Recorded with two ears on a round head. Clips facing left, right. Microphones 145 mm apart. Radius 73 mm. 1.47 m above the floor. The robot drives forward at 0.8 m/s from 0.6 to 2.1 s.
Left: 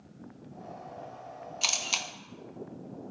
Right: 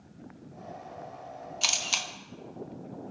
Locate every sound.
1.6 s a camera shutter: centre (ahead or behind), 0.9 m